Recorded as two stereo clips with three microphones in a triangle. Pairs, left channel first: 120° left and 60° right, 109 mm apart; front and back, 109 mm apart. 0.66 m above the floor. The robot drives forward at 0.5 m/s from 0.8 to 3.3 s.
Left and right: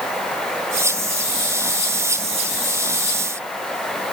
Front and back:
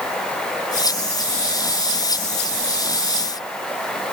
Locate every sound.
Only background noise.